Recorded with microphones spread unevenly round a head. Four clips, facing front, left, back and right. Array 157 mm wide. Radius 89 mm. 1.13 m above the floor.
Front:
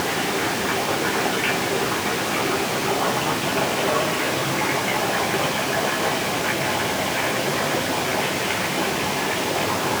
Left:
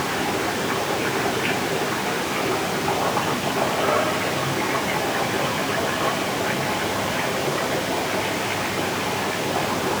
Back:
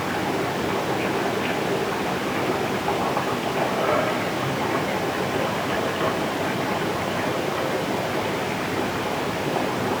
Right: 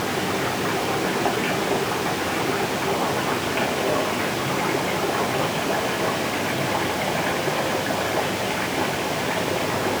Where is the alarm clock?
I don't hear an alarm clock.